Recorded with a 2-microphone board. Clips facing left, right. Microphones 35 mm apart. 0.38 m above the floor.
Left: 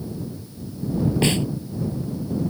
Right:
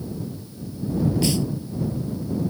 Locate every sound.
1.2 s a snare drum: 40° left (ahead or behind)